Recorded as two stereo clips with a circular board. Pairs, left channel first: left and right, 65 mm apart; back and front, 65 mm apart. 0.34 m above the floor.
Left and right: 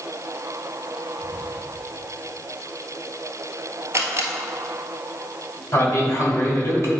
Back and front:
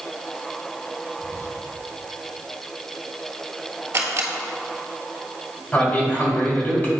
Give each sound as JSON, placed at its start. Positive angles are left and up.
{"t": 1.2, "sound": "whispering", "azimuth_deg": 140, "distance_m": 1.3}
{"t": 3.9, "sound": "a camera shutter", "azimuth_deg": -45, "distance_m": 1.3}
{"t": 5.7, "sound": "a man speaking", "azimuth_deg": 120, "distance_m": 2.5}